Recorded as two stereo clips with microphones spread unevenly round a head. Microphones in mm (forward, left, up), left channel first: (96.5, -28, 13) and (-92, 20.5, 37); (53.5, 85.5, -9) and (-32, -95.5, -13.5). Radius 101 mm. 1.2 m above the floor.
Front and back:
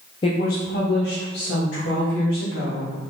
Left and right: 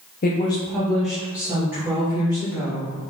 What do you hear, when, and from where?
0.2 s a woman speaking: 35° left, 0.5 m; by 2.9 s 45° right, 3.5 m